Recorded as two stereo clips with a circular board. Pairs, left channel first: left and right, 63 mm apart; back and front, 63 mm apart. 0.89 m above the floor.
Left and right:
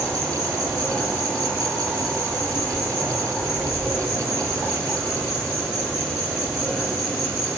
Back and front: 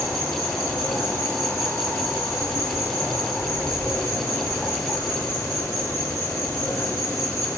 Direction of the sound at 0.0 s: 175° left.